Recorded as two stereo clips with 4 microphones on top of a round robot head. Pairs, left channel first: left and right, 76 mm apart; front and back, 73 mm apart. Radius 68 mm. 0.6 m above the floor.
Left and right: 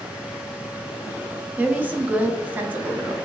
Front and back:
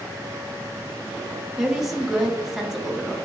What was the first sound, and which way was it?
A woman speaking, 100° right.